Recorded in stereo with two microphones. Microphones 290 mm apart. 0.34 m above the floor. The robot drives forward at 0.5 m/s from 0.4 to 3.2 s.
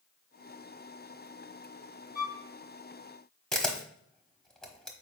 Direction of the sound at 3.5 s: Centre (ahead or behind).